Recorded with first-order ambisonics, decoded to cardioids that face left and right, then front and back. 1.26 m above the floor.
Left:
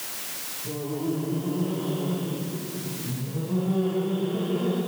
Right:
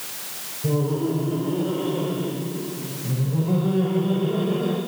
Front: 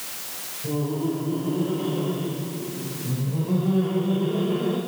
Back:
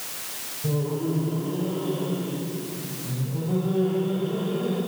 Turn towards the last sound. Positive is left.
turn(degrees=-65)